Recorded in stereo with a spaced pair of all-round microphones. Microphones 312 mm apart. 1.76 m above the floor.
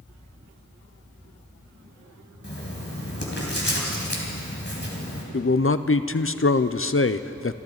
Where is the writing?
35° left (ahead or behind), 3 m.